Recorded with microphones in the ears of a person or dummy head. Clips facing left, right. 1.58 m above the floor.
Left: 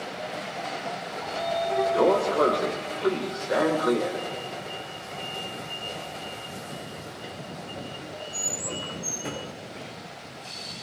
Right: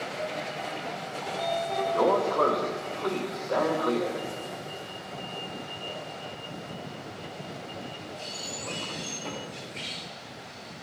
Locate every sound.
1.2 s a sliding door: 15° left (ahead or behind), 2.5 m